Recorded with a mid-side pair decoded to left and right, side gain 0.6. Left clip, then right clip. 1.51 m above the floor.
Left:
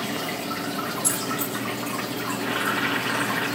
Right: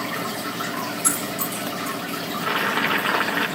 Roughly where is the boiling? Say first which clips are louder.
Right 3 dB; ahead right.